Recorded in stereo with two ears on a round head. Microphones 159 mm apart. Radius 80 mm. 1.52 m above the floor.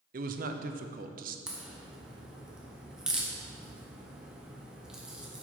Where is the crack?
5° right (ahead or behind), 1.3 m.